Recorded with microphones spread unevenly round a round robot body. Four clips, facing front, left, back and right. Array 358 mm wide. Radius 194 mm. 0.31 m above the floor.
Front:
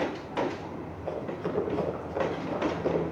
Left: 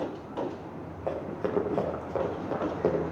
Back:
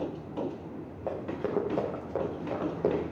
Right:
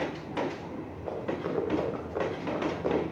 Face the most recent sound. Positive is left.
turn(degrees=130)